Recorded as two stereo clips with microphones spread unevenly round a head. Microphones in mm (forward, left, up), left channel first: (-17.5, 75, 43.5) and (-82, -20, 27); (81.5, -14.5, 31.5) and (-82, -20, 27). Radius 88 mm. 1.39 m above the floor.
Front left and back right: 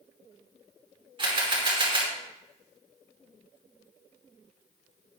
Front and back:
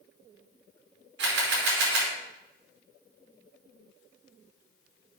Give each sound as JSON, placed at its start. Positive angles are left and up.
{"t": 1.2, "sound": "a camera shutter", "azimuth_deg": -170, "distance_m": 5.0}